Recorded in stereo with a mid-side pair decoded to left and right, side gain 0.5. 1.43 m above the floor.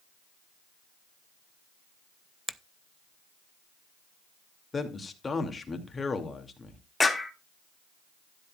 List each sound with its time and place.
2.5 s a finger snap: 15° right, 0.5 m
4.7 s a man speaking: 30° left, 2.5 m
7.0 s a clap: 15° left, 2 m